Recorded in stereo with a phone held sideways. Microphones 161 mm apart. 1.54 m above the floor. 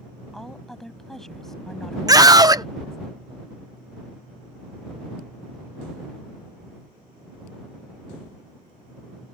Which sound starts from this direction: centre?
A woman speaking, at 0.3 s.